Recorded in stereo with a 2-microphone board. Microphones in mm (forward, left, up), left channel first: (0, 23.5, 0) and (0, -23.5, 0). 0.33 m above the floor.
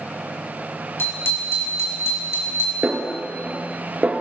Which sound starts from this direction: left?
A bicycle bell, at 1.0 s.